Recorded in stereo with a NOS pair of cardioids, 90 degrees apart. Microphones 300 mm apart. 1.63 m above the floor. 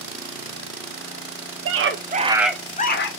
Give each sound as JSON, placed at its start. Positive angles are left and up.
{"t": 1.6, "sound": "a scream", "azimuth_deg": -50, "distance_m": 1.5}